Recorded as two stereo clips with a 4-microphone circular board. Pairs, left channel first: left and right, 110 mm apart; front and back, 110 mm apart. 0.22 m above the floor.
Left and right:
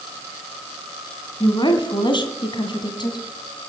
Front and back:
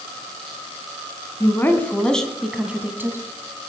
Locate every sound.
1.4 s a woman speaking: 60° left, 2 m; by 3.2 s 120° left, 2.0 m